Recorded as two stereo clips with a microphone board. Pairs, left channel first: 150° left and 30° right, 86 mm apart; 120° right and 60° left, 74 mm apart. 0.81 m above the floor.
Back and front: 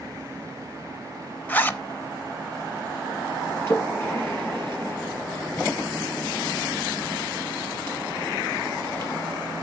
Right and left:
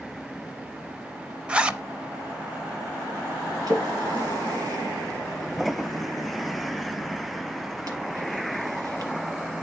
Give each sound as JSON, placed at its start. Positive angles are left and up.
{"t": 1.5, "sound": "a zipper", "azimuth_deg": 115, "distance_m": 0.6}
{"t": 3.7, "sound": "a splash", "azimuth_deg": 95, "distance_m": 4.0}